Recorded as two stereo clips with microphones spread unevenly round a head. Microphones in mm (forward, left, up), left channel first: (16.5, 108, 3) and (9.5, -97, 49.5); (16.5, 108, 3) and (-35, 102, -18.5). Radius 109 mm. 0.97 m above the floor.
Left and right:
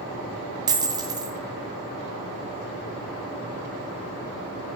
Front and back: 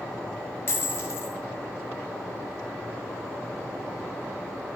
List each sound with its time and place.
0.7 s a dropped coin: 25° right, 1.0 m